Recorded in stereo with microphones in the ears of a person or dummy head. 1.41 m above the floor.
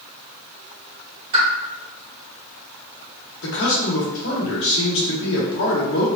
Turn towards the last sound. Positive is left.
turn(degrees=75)  # may be behind; listen again after turning